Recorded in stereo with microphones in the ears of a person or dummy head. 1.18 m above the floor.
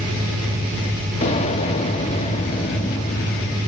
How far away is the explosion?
About 1.4 m.